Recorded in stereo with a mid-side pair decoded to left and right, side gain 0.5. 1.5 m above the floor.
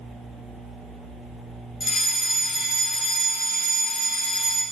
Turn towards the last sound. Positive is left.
turn(degrees=40)